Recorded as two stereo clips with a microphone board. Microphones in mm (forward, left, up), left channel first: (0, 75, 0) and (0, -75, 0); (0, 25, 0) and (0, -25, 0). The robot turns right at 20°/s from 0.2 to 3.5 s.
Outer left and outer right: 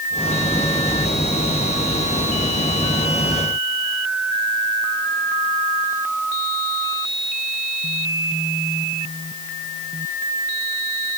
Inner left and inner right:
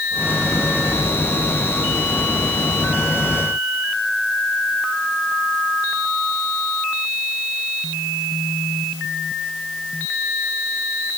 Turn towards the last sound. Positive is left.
No sound to turn to.